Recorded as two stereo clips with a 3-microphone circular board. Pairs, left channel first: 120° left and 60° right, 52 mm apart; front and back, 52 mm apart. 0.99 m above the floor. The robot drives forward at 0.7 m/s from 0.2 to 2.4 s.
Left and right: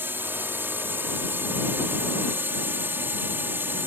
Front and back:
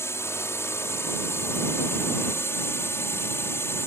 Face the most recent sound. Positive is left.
turn(degrees=-20)